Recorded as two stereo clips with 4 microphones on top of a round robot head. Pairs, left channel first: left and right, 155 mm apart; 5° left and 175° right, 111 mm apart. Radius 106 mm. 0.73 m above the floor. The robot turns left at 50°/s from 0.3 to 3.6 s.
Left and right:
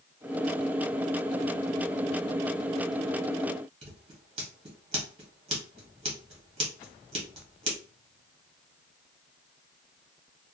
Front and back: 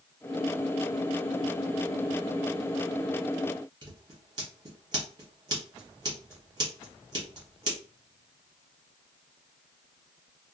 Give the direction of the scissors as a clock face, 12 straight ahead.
4 o'clock.